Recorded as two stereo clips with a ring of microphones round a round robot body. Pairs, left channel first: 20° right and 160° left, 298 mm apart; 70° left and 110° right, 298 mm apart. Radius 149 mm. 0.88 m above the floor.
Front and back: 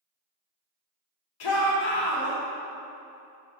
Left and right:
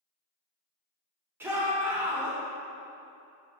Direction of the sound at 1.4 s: 30° right.